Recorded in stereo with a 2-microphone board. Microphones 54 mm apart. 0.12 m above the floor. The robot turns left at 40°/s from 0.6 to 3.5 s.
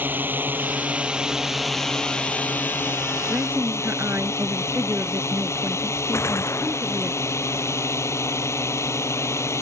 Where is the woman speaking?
45° right (ahead or behind).